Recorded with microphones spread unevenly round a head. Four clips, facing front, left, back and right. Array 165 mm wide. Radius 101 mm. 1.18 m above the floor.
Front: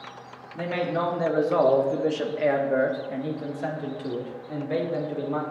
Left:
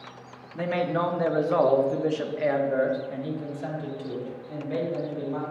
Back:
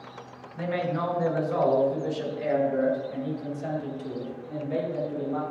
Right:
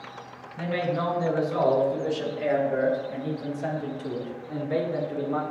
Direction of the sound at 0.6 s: 65° left.